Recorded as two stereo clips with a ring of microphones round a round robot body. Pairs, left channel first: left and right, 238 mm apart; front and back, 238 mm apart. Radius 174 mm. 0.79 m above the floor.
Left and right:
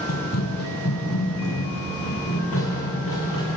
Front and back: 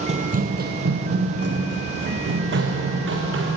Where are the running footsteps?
120° left, 1.3 m; by 3.6 s 145° left, 5.5 m.